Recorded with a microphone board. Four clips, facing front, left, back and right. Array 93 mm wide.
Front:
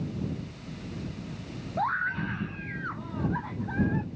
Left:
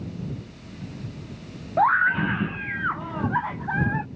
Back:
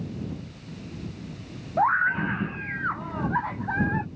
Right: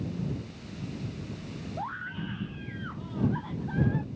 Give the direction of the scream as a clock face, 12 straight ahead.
8 o'clock.